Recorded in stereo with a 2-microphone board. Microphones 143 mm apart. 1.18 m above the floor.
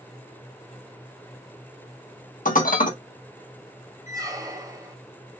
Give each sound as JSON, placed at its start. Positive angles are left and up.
{"t": 2.5, "sound": "dishes clattering", "side_deg": 70, "distance_m": 0.8}
{"t": 4.1, "sound": "a squeak", "side_deg": -25, "distance_m": 0.7}